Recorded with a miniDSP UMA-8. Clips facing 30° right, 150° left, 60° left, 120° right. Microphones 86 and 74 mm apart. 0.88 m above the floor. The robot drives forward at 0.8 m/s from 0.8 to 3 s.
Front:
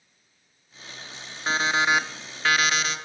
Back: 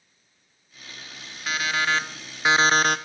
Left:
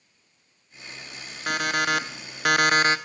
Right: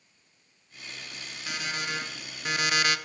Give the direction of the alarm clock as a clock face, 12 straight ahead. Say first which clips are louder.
Front 2 dB, left 10 dB; 11 o'clock.